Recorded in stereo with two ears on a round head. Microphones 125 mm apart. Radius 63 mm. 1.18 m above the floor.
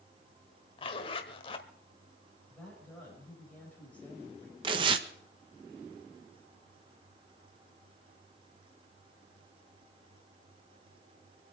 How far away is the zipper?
About 1.4 m.